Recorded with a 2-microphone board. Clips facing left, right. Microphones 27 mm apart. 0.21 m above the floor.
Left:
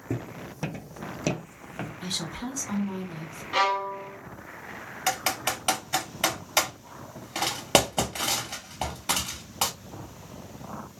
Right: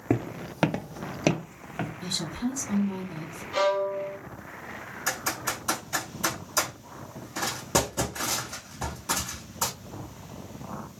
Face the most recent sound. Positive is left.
turn(degrees=70)  # may be behind; listen again after turning